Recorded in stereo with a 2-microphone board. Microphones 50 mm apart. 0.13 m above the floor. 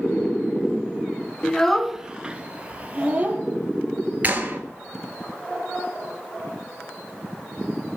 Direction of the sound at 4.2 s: 35° right (ahead or behind).